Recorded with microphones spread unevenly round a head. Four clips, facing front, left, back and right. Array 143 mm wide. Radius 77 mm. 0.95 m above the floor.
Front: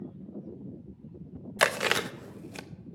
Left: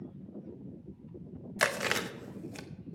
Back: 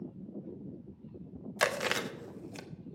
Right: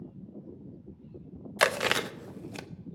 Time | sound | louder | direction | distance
1.6 | chewing | right 5 dB, front 4 dB | 40° right | 0.7 m